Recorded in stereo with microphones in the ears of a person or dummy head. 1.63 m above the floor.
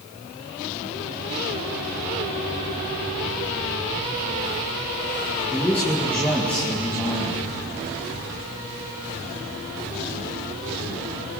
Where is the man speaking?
10° left (ahead or behind), 2.5 m.